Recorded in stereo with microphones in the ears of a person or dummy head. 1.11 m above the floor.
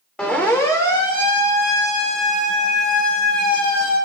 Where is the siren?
Centre (ahead or behind), 2.5 m; by 4.0 s 45° left (ahead or behind), 7 m.